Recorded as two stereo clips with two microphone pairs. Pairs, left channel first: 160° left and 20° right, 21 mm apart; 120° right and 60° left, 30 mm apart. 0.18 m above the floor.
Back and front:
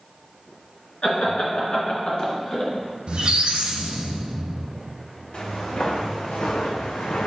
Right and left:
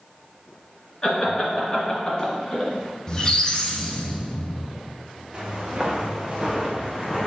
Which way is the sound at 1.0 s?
175° right.